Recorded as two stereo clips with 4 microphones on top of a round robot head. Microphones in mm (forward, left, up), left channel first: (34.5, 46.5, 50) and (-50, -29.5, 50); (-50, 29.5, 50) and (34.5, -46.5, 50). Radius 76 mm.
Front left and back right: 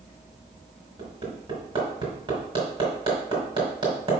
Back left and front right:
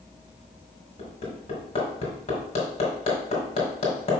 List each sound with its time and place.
1.0 s hammering: 170° left, 3 m